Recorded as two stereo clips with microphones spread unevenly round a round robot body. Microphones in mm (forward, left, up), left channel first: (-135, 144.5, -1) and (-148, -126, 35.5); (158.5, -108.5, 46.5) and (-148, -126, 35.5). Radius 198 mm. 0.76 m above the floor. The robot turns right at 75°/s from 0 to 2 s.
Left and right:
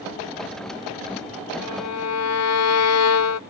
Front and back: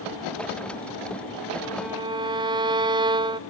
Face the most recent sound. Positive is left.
turn(degrees=105)